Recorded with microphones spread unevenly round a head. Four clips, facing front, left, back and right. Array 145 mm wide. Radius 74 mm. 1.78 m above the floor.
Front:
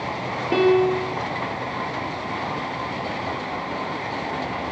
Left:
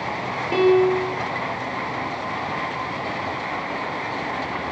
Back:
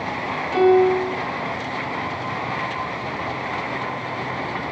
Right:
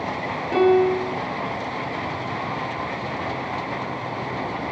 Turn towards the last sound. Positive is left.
turn(degrees=5)